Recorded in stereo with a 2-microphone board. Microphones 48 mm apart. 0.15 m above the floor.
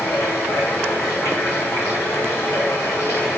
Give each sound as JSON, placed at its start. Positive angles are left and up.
{"t": 0.0, "sound": "running water", "side_deg": 85, "distance_m": 5.0}